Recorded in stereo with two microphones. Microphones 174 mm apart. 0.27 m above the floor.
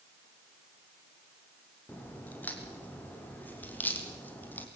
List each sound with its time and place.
1.9 s a crack: 10° left (ahead or behind), 4 m